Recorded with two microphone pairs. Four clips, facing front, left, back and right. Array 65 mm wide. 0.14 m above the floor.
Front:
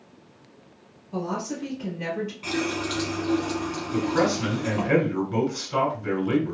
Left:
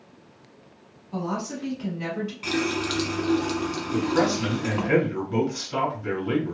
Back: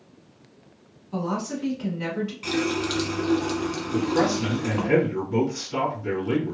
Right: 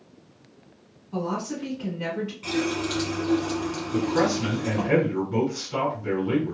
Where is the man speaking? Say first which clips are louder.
Even, even; 30° left, 1.6 m.